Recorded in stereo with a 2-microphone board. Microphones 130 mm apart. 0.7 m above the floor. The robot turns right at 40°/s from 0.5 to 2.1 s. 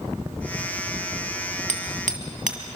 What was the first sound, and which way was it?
Hammering, 75° right (ahead or behind).